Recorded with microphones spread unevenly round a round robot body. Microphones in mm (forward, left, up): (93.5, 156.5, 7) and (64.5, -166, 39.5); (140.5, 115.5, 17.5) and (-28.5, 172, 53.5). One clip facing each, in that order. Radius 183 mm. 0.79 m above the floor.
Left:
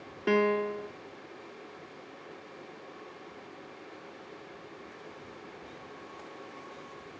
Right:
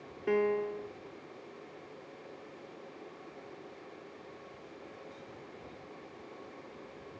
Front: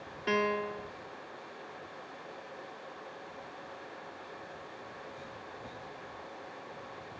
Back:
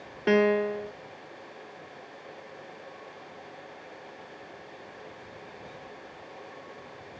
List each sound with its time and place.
0.3 s a piano: 130° left